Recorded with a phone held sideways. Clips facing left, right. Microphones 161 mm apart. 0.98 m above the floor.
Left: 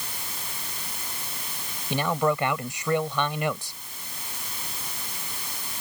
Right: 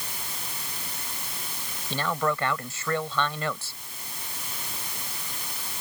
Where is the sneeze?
I don't hear a sneeze.